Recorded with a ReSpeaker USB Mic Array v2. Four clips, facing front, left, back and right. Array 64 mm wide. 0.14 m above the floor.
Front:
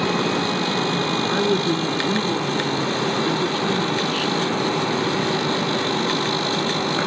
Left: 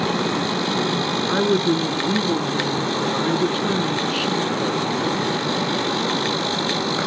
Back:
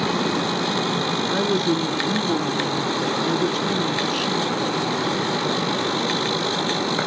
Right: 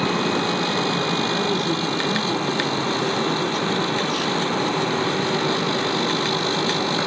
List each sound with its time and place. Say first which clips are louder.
1.3 s a woman speaking: left 4 dB, even; 65° left, 1.2 m